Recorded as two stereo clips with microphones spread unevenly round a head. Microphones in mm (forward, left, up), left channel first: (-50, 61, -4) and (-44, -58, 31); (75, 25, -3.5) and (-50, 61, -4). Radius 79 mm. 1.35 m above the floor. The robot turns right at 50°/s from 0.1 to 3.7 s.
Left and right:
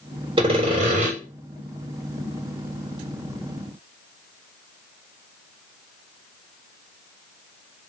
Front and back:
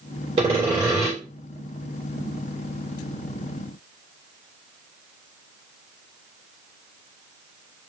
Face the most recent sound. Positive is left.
turn(degrees=30)